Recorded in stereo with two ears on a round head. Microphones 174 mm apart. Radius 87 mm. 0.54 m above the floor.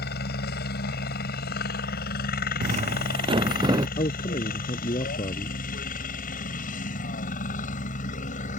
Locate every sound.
0.0 s a helicopter: 55° left (ahead or behind); by 8.6 s 40° left (ahead or behind)
2.6 s footsteps: 40° right (ahead or behind); by 3.9 s 20° right (ahead or behind)
4.0 s a man speaking: 30° left (ahead or behind)